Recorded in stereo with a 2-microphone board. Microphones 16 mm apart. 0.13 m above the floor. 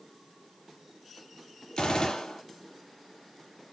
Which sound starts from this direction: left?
A gunshot, at 1.8 s.